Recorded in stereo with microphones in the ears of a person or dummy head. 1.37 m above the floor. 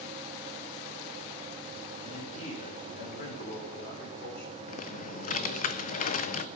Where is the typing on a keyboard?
45° left (ahead or behind), 0.5 m.